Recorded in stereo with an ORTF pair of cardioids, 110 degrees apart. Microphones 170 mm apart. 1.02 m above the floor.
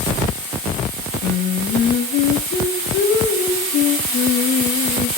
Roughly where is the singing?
Ahead left.